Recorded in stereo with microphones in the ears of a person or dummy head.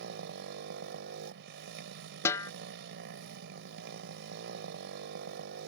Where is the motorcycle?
70° right (ahead or behind).